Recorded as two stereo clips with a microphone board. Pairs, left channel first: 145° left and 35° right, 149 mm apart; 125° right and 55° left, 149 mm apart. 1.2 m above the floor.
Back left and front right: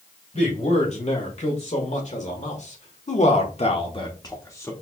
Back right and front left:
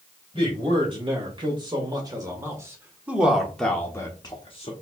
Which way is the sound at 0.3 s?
105° left.